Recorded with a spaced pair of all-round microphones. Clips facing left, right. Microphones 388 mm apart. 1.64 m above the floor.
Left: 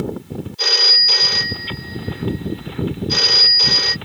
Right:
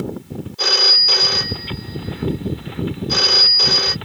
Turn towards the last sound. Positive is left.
turn(degrees=-65)  # may be behind; listen again after turning